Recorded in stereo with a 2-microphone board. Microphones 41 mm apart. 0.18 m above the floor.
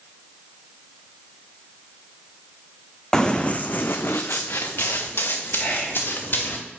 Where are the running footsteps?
15° left (ahead or behind), 0.7 m; by 6.6 s 60° left (ahead or behind), 2.0 m.